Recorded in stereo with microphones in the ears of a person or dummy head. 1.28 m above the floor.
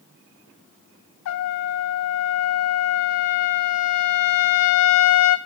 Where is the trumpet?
70° left (ahead or behind), 1.1 m.